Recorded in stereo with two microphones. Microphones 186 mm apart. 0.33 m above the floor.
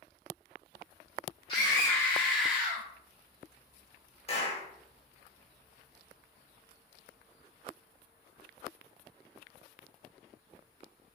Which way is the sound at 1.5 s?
25° left (ahead or behind).